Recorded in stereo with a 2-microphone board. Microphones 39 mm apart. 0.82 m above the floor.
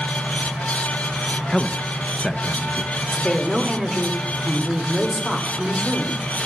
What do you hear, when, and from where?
1.5 s a man speaking: 15° left (ahead or behind), 0.7 m
3.1 s a woman speaking: 10° left (ahead or behind), 2.5 m